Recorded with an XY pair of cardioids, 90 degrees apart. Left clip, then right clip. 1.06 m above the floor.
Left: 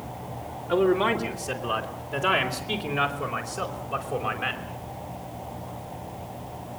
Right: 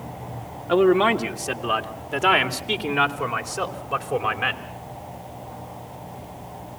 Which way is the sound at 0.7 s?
60° right.